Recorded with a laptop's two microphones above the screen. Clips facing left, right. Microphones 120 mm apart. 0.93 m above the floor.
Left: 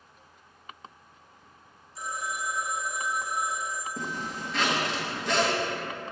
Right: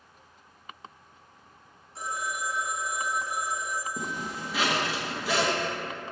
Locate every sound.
1.9 s a phone ringing: 75° right (ahead or behind), 1.2 m
4.0 s a zipper: 5° right (ahead or behind), 0.9 m